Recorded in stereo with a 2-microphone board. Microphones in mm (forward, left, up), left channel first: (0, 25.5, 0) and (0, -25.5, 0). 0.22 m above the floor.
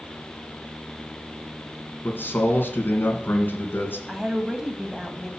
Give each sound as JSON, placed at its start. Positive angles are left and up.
{"t": 2.0, "sound": "a man speaking", "side_deg": 45, "distance_m": 2.0}
{"t": 4.1, "sound": "a woman speaking", "side_deg": -10, "distance_m": 1.2}